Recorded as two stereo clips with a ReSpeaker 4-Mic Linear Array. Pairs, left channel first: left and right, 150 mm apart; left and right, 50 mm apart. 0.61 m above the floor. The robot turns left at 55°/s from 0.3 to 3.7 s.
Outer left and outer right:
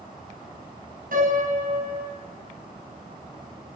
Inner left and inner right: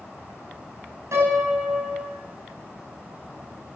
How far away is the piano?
About 5.5 m.